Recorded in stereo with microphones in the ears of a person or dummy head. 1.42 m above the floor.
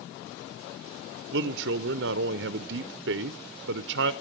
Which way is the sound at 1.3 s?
65° right (ahead or behind).